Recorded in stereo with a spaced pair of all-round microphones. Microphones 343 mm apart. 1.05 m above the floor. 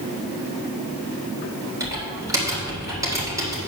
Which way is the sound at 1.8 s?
10° right (ahead or behind).